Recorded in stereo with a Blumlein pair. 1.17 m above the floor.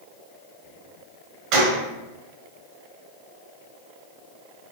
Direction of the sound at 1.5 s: 40° right.